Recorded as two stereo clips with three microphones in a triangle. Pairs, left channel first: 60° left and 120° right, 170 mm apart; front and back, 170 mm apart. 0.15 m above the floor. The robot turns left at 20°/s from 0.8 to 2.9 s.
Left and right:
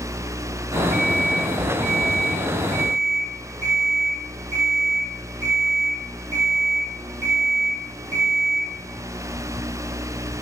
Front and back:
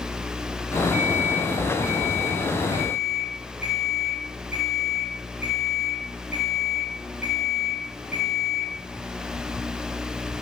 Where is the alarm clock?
135° left, 2.5 m; by 8.7 s 95° left, 2.5 m.